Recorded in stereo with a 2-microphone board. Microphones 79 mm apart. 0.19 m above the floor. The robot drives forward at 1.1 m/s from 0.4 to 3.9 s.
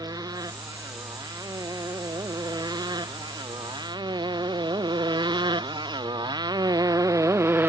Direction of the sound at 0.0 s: 60° right (ahead or behind).